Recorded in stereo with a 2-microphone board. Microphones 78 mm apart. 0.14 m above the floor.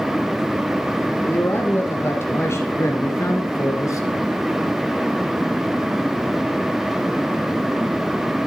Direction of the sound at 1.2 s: 25° left (ahead or behind).